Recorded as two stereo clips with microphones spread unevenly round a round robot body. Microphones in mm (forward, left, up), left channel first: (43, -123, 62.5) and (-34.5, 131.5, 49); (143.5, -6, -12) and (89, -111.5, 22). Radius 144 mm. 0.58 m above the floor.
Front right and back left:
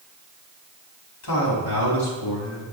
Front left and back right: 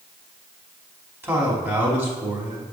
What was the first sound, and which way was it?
A man speaking, 45° right.